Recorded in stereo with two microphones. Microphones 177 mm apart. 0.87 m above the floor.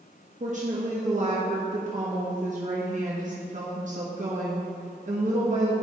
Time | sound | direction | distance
0.4 | a woman speaking | 45° right (ahead or behind) | 1.3 m